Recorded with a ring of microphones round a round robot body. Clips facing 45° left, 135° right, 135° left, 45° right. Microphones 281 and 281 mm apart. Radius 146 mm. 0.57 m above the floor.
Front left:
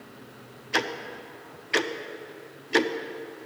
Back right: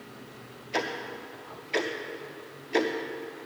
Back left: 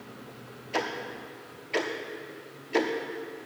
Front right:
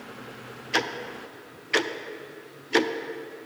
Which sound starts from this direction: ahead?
Ticking, at 0.7 s.